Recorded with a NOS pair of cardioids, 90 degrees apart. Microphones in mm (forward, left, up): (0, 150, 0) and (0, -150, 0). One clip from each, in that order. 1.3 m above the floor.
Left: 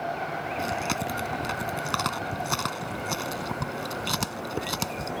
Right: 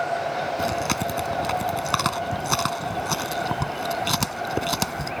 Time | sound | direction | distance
0.6 | chewing | 35° right | ?